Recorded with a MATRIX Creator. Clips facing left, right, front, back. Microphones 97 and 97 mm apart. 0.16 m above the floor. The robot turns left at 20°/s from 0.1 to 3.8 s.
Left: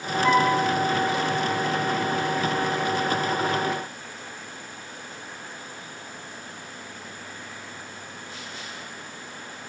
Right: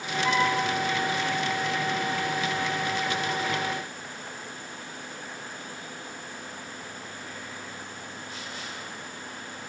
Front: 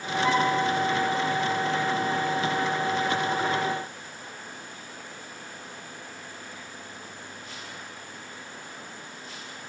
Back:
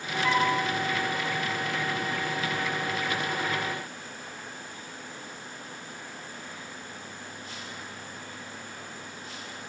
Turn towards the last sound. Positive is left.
turn(degrees=0)